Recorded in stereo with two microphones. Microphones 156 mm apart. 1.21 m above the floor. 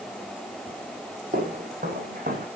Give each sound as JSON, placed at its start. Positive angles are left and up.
{"t": 1.3, "sound": "footsteps", "side_deg": -60, "distance_m": 3.0}